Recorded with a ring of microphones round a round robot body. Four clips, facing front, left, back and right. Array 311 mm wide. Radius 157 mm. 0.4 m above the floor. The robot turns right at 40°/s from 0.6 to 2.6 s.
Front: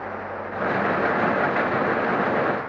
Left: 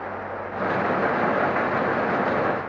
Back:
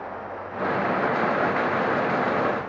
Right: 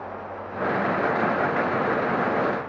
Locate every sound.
Only background noise.